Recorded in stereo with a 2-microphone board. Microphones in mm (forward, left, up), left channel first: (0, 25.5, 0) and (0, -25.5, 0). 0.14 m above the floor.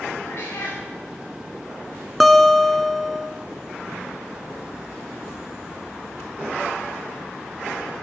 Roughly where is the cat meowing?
Left.